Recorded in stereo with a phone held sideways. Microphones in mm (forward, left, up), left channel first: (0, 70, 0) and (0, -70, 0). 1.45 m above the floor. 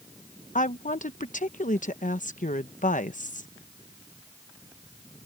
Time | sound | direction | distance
0.6 | a woman speaking | 65° left (ahead or behind) | ?